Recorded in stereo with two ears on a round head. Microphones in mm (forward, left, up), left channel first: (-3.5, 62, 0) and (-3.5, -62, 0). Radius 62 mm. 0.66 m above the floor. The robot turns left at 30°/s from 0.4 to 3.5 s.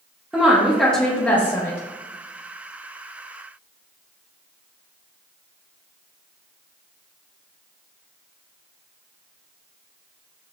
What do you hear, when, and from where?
0.3 s a woman speaking: centre (ahead or behind), 0.7 m; by 1.8 s 15° left (ahead or behind), 0.7 m